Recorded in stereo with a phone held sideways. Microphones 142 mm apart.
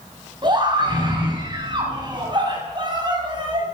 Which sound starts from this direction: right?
A scream, at 0.4 s.